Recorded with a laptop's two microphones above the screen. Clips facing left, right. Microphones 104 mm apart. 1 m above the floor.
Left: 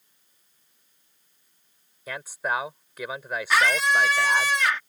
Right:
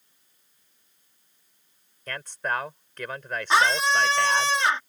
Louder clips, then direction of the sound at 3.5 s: Right 1 dB; 30° right (ahead or behind).